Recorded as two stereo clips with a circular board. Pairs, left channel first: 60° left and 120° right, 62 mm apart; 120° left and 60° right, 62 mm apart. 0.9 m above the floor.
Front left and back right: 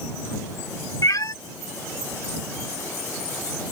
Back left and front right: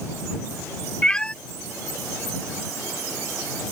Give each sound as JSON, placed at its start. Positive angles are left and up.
{"t": 1.0, "sound": "a cat meowing", "azimuth_deg": 45}